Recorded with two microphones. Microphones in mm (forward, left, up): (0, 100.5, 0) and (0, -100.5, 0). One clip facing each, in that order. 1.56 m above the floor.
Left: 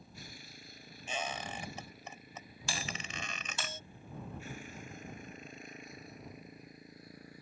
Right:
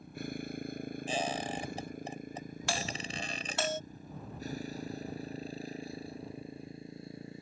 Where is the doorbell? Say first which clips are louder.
Right 4 dB; 65° right (ahead or behind).